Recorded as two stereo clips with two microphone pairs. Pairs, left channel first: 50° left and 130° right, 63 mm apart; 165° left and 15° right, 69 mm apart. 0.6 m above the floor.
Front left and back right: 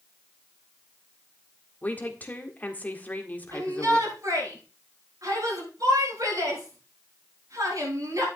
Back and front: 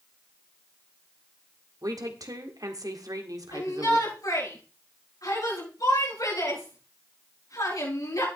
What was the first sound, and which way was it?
A woman speaking, 10° right.